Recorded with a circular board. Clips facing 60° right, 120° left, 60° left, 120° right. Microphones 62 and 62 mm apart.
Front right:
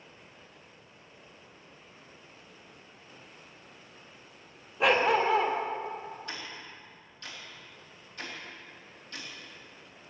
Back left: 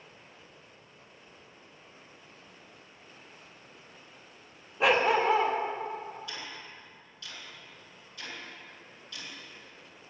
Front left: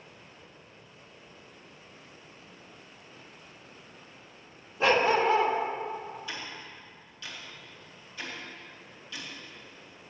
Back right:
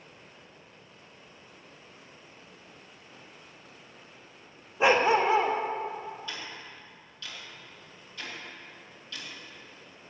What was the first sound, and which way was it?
A dog barking, 150° right.